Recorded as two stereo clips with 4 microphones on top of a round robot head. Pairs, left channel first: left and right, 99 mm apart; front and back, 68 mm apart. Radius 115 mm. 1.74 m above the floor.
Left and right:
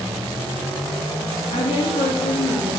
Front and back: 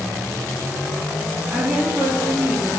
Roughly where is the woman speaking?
Left.